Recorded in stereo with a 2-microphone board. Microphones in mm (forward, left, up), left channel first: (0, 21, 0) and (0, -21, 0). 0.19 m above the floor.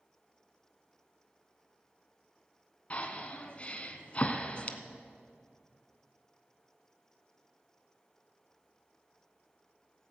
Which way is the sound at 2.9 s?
30° left (ahead or behind).